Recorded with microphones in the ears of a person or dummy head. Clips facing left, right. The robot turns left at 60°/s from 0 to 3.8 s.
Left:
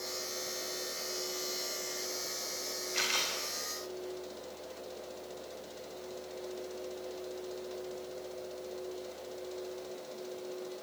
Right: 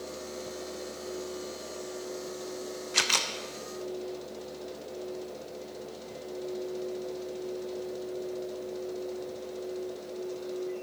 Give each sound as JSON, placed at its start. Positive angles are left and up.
{"t": 2.9, "sound": "a camera shutter", "side_deg": -80, "distance_m": 0.9}